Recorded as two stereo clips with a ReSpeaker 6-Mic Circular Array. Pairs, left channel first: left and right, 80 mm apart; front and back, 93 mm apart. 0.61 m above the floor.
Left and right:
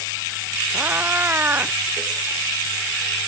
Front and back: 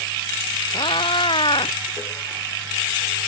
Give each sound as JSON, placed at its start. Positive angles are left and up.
{"t": 0.7, "sound": "a cat meowing", "azimuth_deg": -20}